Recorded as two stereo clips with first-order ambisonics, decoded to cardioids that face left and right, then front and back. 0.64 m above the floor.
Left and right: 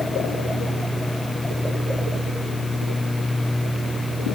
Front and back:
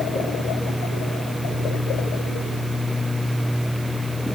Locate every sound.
Only background noise.